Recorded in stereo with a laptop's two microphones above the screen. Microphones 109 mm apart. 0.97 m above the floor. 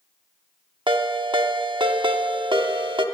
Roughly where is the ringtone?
Right.